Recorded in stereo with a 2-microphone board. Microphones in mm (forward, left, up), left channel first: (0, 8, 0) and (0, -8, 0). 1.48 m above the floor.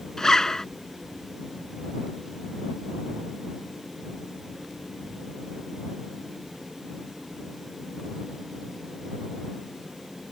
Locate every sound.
0.2 s a zipper: 30° left (ahead or behind)